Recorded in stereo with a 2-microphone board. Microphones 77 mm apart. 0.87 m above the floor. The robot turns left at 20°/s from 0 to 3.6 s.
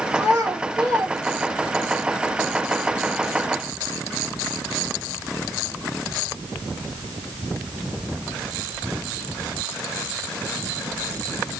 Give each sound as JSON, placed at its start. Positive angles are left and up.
{"t": 0.1, "sound": "a child speaking", "side_deg": -40, "distance_m": 1.1}